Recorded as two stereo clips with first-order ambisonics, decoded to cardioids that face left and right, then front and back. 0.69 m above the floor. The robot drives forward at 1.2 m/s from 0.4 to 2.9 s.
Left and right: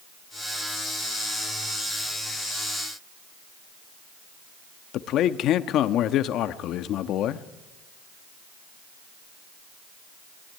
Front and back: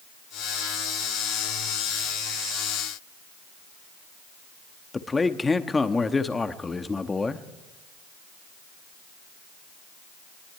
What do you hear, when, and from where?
4.9 s a man speaking: 75° left, 0.9 m